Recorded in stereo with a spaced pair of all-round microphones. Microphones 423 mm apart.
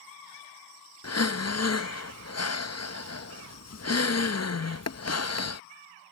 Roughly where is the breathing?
Left.